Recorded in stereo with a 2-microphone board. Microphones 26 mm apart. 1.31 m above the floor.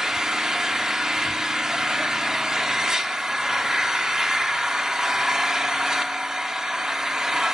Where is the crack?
I don't hear a crack.